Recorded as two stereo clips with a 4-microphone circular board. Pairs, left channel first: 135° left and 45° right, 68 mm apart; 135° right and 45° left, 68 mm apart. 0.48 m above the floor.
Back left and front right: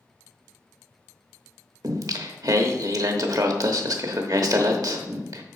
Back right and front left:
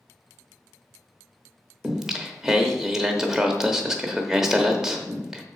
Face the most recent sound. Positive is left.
turn(degrees=-35)